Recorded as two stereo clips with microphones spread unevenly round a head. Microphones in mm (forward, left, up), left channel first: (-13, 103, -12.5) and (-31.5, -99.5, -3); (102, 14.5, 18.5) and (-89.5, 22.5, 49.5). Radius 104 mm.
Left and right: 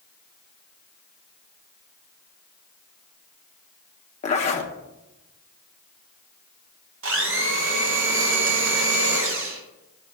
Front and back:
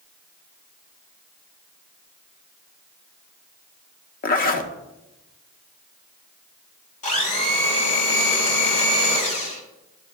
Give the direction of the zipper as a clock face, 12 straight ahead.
11 o'clock.